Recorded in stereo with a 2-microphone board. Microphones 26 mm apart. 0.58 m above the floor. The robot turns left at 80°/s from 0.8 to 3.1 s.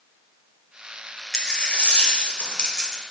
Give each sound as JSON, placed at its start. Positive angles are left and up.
{"t": 1.3, "sound": "a dropped coin", "azimuth_deg": 155, "distance_m": 1.2}